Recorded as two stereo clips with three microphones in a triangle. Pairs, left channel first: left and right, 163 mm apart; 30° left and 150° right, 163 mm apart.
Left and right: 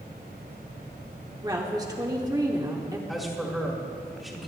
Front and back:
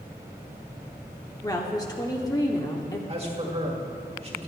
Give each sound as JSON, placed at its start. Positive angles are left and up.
{"t": 1.4, "sound": "a woman speaking", "azimuth_deg": -30, "distance_m": 1.0}
{"t": 3.1, "sound": "a man speaking", "azimuth_deg": 180, "distance_m": 1.7}